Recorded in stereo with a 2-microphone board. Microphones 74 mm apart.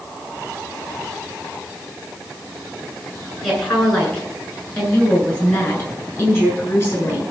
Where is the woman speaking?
5° left (ahead or behind), 8 m; by 7.2 s 30° left (ahead or behind), 9 m.